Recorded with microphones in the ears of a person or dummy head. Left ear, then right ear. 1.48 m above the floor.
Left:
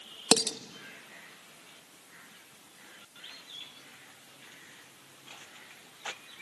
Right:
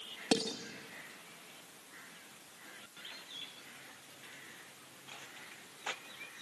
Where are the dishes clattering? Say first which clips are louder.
Left 7 dB; 35° left (ahead or behind), 1.3 m.